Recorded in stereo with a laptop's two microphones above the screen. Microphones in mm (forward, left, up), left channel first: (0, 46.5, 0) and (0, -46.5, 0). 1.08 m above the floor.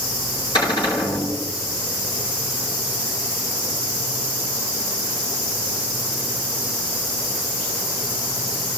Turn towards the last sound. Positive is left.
turn(degrees=55)  # may be behind; listen again after turning